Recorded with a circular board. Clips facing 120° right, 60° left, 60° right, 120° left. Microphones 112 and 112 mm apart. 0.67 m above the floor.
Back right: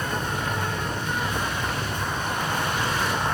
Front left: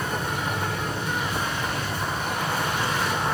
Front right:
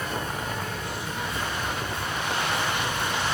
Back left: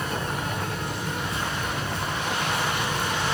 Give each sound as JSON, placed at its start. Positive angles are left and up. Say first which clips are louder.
{"t": 0.0, "sound": "an insect", "louder": "even, back left 1 dB", "azimuth_deg": 140, "distance_m": 3.0}